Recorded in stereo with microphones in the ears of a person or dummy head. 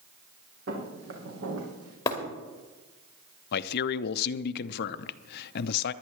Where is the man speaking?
60° left (ahead or behind), 0.5 m.